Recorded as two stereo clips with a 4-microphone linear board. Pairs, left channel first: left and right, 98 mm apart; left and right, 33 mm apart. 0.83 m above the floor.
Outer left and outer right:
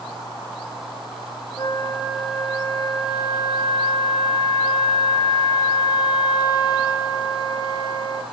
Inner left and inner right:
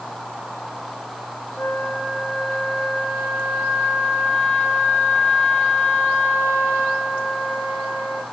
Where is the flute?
45° left (ahead or behind), 1.1 m.